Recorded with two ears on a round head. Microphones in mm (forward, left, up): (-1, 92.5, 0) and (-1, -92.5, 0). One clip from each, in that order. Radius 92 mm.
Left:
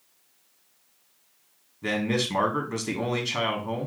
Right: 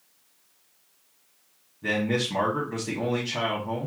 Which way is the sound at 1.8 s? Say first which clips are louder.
Right 1 dB; 35° left (ahead or behind).